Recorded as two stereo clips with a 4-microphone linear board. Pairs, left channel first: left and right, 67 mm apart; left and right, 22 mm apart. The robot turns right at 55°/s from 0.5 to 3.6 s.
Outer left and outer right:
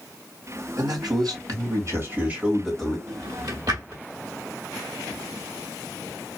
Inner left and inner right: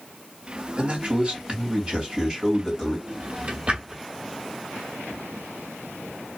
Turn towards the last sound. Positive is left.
turn(degrees=-70)  # may be behind; listen again after turning